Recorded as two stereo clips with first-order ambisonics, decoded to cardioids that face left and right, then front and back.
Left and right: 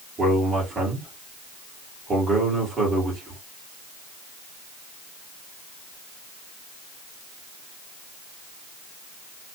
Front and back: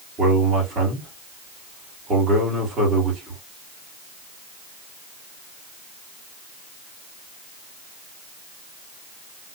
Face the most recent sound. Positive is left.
turn(degrees=-155)